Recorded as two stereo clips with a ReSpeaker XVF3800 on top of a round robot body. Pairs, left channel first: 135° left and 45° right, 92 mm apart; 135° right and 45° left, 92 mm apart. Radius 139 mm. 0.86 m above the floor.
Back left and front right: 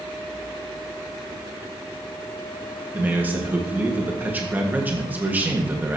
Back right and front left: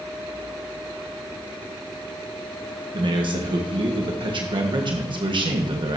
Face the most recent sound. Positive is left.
turn(degrees=25)